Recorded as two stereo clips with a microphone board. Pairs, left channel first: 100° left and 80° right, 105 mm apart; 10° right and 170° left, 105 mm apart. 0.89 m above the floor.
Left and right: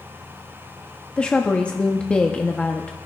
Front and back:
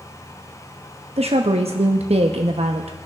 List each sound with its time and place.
1.2 s a woman speaking: straight behind, 0.9 m